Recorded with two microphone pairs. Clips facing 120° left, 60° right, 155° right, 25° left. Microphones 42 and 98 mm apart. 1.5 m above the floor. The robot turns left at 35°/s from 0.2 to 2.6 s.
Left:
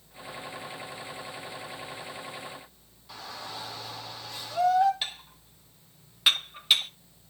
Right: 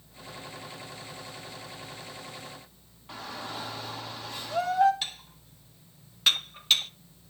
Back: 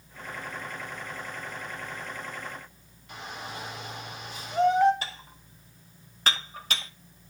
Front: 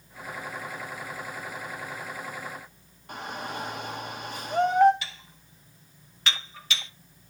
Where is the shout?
10° right, 2.5 m.